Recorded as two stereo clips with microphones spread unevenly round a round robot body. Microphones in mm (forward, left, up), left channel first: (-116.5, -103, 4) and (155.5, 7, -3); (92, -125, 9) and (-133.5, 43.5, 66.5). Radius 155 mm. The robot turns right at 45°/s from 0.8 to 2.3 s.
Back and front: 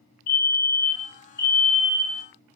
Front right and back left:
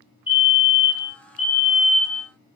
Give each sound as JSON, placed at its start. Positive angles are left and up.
{"t": 0.3, "sound": "a fire alarm", "azimuth_deg": -130, "distance_m": 6.0}